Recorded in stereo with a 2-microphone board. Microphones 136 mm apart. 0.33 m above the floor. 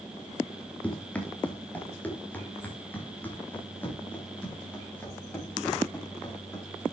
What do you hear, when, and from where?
0.8 s running footsteps: 10° left (ahead or behind), 3 m; by 6.8 s 15° left (ahead or behind), 8.5 m